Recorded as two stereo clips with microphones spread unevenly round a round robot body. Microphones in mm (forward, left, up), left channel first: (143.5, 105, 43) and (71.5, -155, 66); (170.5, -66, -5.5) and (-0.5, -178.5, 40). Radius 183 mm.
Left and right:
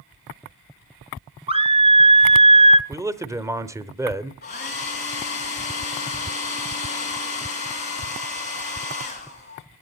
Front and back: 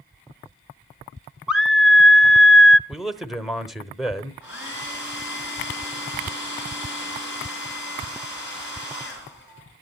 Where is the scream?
45° right, 1.1 m.